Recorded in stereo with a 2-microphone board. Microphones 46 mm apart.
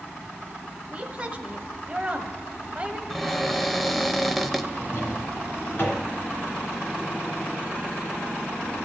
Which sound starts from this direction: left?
A drawer, at 4.7 s.